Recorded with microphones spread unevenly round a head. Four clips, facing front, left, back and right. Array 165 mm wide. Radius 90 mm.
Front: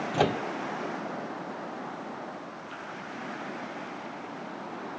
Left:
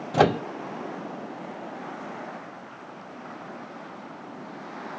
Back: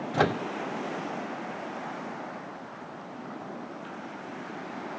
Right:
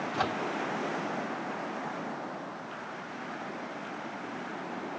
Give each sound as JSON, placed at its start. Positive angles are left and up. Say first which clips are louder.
{"t": 0.1, "sound": "a microwave", "louder": "left 13 dB, back 1 dB", "azimuth_deg": 90}